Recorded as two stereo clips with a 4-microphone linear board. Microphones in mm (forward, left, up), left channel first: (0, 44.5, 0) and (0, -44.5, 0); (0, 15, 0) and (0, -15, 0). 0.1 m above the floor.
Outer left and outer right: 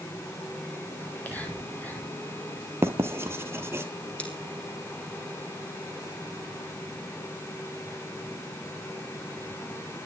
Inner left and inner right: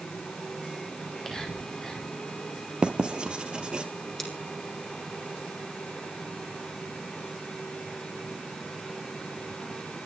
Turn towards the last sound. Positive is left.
turn(degrees=15)  # may be behind; listen again after turning